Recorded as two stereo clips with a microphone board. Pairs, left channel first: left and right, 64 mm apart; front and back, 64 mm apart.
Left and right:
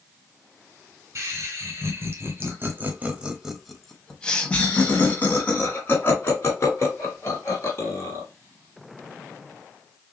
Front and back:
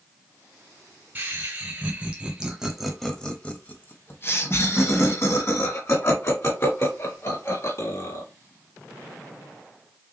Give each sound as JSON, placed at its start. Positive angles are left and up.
{"t": 1.1, "sound": "laughter", "azimuth_deg": -125, "distance_m": 1.8}